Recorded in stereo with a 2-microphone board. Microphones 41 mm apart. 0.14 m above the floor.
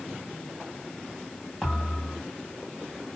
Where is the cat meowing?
I don't hear a cat meowing.